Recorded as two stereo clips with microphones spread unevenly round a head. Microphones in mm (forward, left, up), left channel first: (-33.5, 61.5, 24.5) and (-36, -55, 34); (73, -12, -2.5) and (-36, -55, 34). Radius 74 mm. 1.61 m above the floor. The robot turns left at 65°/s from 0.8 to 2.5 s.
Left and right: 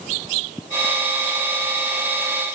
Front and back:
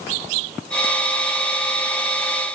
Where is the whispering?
No whispering in this recording.